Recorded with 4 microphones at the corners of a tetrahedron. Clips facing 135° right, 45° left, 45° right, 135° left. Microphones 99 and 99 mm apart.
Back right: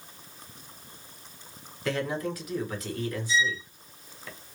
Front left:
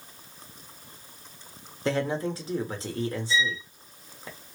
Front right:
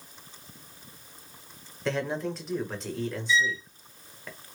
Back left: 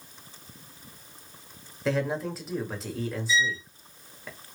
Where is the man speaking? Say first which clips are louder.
Front left 3 dB, back left 2 dB; 50° left, 1.2 m.